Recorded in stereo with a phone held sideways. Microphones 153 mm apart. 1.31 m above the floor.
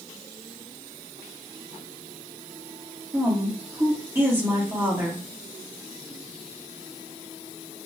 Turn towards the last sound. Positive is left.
turn(degrees=-15)  # may be behind; listen again after turning